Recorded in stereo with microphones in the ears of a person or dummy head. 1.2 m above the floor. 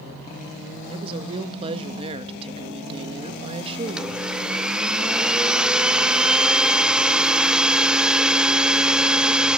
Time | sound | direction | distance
0.9 | a woman speaking | 35° right (ahead or behind) | 1.5 m
3.9 | a blender | 5° right (ahead or behind) | 0.9 m